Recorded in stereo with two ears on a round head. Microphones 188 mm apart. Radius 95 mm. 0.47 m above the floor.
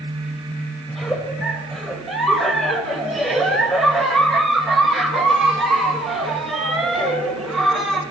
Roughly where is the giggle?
Centre.